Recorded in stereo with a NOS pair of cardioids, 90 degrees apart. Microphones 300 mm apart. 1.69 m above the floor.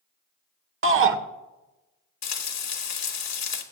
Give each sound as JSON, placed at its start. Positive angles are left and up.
{"t": 0.8, "sound": "a shout", "azimuth_deg": -45, "distance_m": 1.3}
{"t": 2.2, "sound": "frying", "azimuth_deg": 60, "distance_m": 1.8}